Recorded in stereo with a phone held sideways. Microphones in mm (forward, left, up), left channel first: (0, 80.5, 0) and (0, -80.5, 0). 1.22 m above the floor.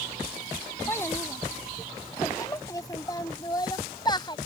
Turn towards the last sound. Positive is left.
turn(degrees=30)  # may be behind; listen again after turning